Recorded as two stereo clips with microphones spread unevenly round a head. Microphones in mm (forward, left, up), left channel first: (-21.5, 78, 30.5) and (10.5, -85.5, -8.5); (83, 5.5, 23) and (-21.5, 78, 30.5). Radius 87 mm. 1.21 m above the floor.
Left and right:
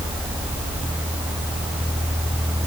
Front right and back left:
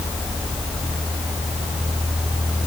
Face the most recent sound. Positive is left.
No sound to turn to.